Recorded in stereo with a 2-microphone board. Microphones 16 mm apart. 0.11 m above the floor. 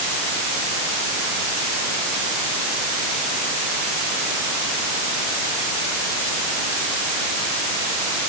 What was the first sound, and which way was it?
Only background noise.